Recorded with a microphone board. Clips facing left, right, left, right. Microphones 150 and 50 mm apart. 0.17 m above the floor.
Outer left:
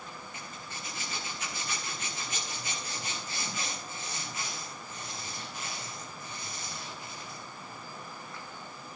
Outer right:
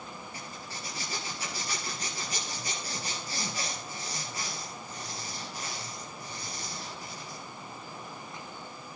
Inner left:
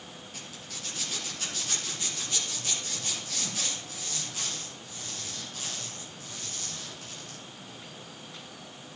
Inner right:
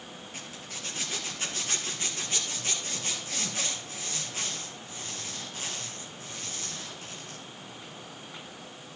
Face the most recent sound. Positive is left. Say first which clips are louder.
# outer right 2 dB, inner right 2 dB
turn(degrees=-35)  # may be behind; listen again after turning